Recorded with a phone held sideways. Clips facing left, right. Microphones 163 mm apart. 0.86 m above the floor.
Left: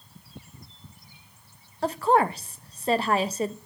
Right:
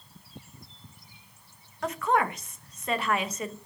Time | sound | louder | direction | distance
1.8 | a woman speaking | left 5 dB | 30° left (ahead or behind) | 0.6 m